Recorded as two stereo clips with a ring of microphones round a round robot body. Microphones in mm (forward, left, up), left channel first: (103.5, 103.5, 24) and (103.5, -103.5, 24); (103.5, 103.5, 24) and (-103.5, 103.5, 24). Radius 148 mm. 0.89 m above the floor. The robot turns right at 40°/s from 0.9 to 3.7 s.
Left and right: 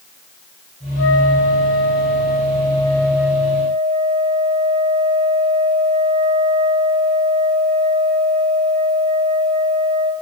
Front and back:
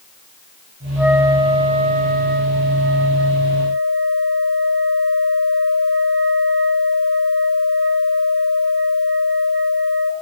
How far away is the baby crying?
I don't hear a baby crying.